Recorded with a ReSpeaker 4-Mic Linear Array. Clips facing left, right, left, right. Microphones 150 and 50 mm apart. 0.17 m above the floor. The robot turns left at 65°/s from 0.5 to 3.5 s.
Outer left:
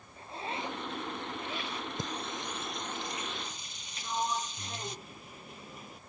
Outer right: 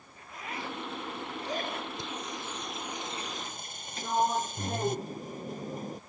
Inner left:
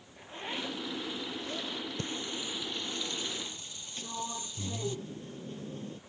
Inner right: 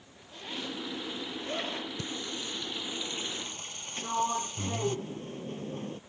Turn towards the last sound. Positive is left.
turn(degrees=-45)  # may be behind; listen again after turning